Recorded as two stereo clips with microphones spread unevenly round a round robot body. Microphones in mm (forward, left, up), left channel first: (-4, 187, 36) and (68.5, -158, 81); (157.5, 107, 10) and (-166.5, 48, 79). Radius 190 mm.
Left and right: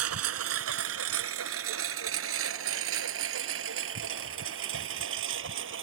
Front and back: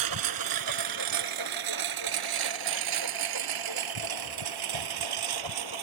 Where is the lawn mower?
130° right; by 5.8 s 135° right.